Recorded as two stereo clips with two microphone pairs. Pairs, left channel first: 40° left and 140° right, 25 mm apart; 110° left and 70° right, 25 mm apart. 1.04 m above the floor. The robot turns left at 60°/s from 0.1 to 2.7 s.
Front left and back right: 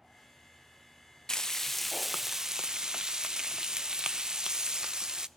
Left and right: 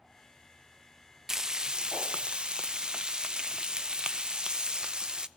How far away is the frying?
About 0.6 m.